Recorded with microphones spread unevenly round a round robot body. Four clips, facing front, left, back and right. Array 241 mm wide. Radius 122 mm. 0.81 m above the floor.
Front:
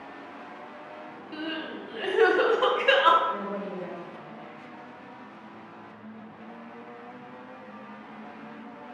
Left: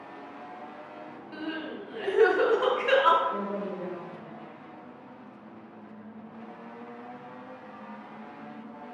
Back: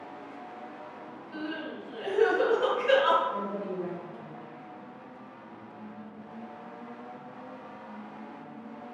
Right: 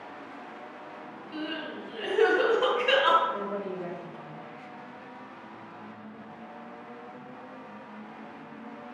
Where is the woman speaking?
55° left, 2.5 m.